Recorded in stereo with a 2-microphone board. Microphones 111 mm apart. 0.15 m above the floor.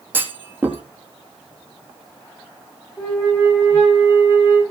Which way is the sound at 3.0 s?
25° left (ahead or behind).